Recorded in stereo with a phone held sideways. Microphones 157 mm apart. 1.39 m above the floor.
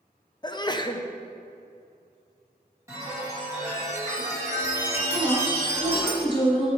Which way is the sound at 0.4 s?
30° left (ahead or behind).